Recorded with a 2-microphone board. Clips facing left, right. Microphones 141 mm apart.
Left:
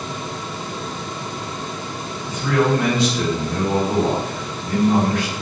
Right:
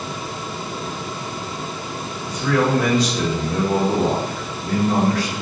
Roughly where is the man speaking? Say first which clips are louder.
Left 1 dB; right.